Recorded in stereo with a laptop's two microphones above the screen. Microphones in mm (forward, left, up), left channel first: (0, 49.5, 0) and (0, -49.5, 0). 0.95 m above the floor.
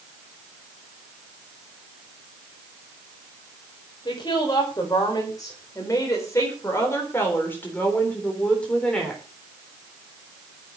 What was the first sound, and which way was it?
A woman speaking, 45° left (ahead or behind).